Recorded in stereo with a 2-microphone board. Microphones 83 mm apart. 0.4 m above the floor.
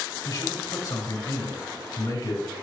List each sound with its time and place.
0.2 s a man speaking: 40° left (ahead or behind), 4 m